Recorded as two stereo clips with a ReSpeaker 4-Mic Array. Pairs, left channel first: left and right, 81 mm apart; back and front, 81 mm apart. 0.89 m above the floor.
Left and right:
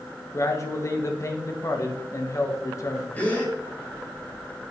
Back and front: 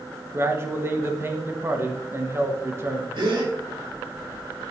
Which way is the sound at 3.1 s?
20° left.